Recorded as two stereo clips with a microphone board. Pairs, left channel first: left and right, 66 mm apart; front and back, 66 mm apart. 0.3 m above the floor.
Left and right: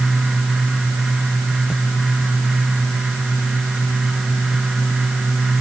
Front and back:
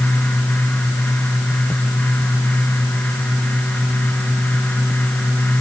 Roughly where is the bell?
No bell in this recording.